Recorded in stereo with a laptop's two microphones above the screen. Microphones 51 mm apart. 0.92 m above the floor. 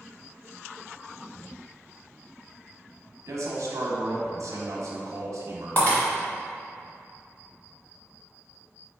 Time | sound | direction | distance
3.3 | a man speaking | 75° right (ahead or behind) | 0.8 m
5.8 | breaking glass | 40° left (ahead or behind) | 1.4 m